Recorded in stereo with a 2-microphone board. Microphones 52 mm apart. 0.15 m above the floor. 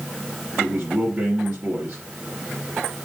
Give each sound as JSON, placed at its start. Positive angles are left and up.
{"t": 0.6, "sound": "a man speaking", "side_deg": -45, "distance_m": 2.5}